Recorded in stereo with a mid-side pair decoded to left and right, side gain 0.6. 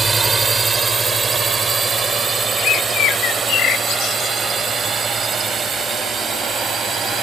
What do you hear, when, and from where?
0.0 s a drone: 20° right; by 7.2 s 30° right
2.6 s a bird: 60° left